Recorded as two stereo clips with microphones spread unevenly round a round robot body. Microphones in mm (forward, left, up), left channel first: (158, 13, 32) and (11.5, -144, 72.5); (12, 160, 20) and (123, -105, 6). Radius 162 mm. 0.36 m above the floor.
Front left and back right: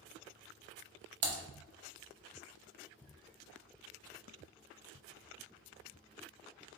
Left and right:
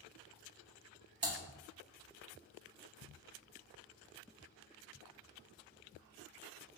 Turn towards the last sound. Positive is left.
turn(degrees=-135)